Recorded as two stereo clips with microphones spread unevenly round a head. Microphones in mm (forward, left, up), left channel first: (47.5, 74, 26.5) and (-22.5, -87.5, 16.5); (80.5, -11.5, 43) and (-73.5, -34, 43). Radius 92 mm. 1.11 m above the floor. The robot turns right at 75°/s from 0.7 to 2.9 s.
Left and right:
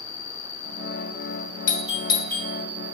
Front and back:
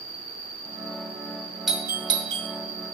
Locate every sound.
0.0 s an insect: 80° left, 1.4 m; by 3.0 s 115° right, 1.4 m
1.7 s a doorbell: 100° left, 0.8 m; by 2.5 s 165° left, 0.8 m